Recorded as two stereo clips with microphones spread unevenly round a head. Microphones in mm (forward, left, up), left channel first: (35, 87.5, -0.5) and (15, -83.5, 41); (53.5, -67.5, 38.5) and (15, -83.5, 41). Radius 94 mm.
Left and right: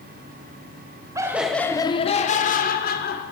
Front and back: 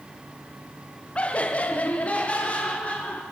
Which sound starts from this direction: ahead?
Laughter, at 1.1 s.